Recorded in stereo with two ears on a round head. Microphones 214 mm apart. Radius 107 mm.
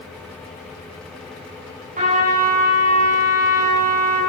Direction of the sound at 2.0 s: 35° right (ahead or behind).